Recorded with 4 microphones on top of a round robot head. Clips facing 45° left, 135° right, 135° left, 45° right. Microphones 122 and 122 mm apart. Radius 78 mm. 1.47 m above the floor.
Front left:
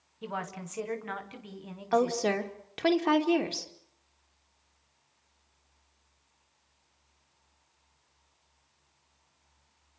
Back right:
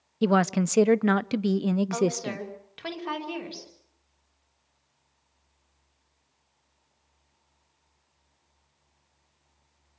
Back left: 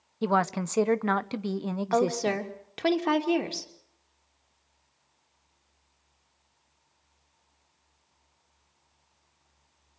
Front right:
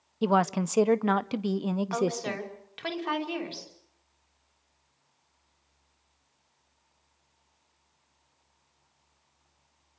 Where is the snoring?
I don't hear snoring.